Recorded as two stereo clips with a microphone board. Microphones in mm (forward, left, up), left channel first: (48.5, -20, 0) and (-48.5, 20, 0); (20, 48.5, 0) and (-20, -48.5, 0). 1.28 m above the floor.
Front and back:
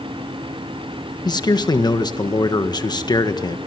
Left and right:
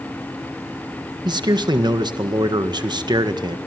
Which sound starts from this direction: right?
A man speaking, at 1.2 s.